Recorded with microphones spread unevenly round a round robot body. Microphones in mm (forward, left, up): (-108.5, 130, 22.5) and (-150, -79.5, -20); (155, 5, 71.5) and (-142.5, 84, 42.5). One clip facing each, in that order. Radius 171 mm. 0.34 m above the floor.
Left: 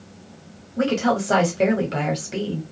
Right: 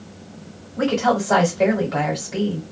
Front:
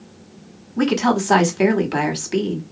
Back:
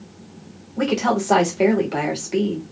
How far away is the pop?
No pop in this recording.